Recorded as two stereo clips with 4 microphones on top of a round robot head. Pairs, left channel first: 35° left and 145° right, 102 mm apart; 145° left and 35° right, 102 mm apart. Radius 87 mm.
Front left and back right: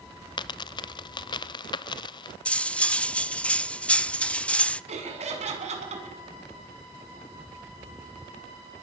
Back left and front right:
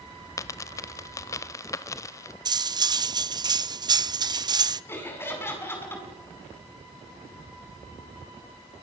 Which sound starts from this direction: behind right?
Laughter, at 4.9 s.